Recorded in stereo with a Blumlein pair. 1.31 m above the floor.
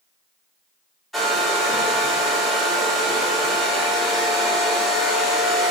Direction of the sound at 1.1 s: 5° left.